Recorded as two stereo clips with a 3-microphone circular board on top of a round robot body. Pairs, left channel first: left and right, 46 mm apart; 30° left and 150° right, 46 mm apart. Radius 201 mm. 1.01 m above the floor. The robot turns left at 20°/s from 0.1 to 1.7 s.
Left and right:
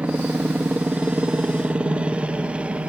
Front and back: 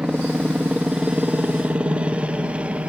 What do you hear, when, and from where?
0.0 s a helicopter: 95° right; by 2.9 s 125° right